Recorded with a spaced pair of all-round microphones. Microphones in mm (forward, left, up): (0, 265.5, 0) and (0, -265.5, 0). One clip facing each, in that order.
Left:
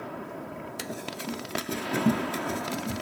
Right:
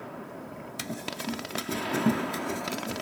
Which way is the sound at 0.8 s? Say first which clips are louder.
Right 2 dB; 30° right (ahead or behind).